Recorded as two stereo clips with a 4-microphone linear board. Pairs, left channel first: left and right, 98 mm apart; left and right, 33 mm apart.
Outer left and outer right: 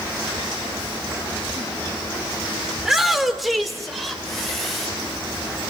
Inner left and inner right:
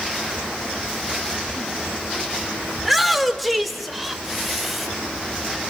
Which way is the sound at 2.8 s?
Centre (ahead or behind).